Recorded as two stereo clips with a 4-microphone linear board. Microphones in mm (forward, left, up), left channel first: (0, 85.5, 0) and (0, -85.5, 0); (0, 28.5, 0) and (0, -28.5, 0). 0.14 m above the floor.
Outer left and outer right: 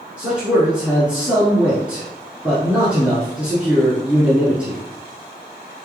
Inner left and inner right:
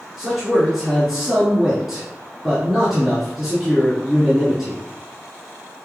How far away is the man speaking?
About 1.4 m.